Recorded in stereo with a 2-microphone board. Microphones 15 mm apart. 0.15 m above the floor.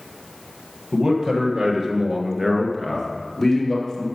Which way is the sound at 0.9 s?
65° right (ahead or behind).